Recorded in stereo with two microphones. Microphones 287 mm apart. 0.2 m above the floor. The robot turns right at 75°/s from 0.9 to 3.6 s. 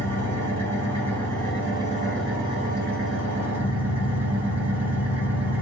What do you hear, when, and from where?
0.0 s an engine running: 80° left, 1.5 m; by 5.6 s 80° right, 1.5 m